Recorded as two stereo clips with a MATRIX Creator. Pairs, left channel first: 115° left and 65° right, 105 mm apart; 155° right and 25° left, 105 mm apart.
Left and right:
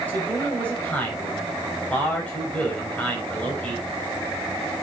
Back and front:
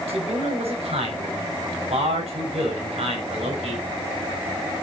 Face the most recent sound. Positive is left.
turn(degrees=35)